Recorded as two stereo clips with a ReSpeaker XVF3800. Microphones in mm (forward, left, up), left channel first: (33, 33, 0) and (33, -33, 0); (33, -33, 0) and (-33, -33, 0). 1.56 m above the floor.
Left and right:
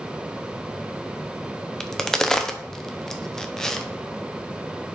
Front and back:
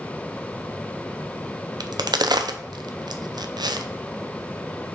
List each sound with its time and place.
1.8 s a crack: 175° left, 0.6 m